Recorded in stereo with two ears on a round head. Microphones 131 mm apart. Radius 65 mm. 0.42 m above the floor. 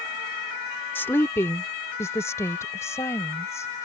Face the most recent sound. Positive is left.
turn(degrees=20)  # may be behind; listen again after turning